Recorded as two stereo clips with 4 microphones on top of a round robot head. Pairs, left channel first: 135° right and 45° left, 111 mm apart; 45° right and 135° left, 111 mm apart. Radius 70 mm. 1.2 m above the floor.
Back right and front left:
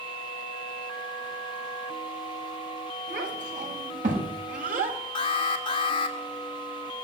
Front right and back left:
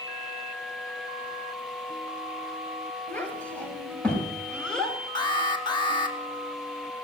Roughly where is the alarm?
Right.